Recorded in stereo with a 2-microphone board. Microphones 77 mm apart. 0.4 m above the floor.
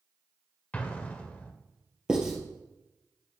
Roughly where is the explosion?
Centre.